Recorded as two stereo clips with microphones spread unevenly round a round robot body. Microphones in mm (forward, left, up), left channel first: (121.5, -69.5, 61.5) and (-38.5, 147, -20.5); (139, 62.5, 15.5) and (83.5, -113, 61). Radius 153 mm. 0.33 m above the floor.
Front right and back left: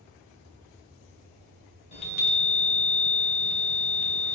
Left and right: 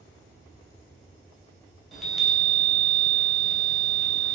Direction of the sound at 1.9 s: 20° left.